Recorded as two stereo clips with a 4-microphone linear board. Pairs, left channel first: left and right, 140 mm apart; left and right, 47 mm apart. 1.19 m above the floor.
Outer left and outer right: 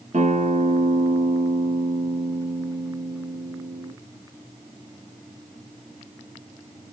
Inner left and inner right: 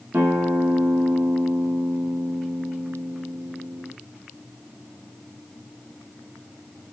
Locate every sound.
0.1 s a guitar: 60° right (ahead or behind), 1.2 m